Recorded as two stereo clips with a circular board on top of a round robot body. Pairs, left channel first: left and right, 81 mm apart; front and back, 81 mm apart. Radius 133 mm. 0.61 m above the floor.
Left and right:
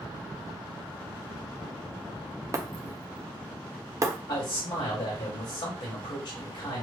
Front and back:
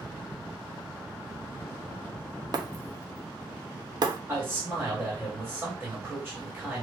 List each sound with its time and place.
2.5 s breaking glass: 145° right, 0.7 m
4.3 s a man speaking: 105° left, 2.5 m